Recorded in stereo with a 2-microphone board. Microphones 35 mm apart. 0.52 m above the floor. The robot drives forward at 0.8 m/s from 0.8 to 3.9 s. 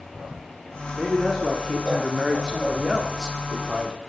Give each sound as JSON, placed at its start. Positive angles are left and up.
{"t": 0.9, "sound": "a man speaking", "side_deg": -15, "distance_m": 1.5}